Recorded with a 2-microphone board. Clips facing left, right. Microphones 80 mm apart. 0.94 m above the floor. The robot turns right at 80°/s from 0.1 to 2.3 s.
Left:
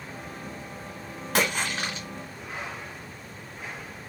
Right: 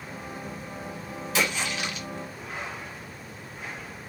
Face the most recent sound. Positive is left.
turn(degrees=170)